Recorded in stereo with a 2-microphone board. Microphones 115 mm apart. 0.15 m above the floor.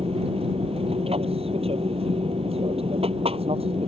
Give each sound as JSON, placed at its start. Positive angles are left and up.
{"t": 0.0, "sound": "an aircraft", "side_deg": -65}